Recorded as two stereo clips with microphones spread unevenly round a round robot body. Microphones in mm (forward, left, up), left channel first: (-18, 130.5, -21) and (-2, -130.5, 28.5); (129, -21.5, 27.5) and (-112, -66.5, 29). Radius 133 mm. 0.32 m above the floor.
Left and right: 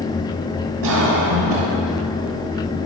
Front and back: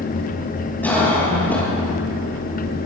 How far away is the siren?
No siren in this recording.